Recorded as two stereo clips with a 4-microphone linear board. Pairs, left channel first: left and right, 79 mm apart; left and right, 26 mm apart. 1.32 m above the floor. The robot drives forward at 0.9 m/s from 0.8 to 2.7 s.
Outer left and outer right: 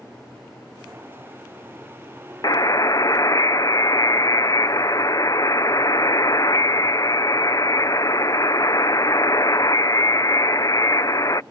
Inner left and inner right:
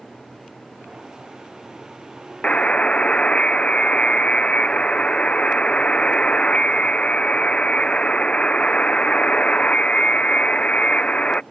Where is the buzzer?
50° left (ahead or behind); by 11.4 s 45° left (ahead or behind).